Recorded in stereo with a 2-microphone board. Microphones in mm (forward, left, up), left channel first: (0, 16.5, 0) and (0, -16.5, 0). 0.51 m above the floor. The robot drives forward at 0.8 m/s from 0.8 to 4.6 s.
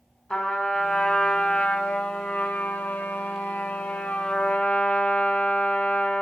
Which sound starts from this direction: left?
A trumpet, at 0.3 s.